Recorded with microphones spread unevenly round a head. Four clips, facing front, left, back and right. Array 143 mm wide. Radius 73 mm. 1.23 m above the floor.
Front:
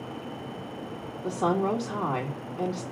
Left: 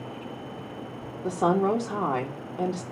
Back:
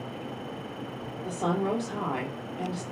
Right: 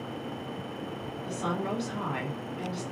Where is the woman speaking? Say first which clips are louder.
Left 9 dB, front 3 dB; 70° left, 3 m.